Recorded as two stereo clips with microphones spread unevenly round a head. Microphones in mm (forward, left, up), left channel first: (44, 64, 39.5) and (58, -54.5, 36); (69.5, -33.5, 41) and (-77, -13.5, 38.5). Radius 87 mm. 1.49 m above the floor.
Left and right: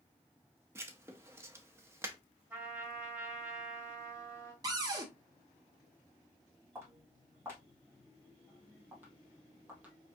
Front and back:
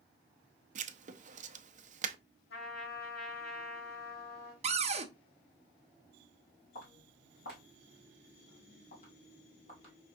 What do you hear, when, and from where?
0.8 s writing: 155° right, 0.5 m
2.5 s a trumpet: 10° right, 3.5 m
4.6 s a cupboard door: 145° right, 0.8 m
6.8 s footsteps: 15° right, 3.5 m; by 9.9 s 10° right, 1.7 m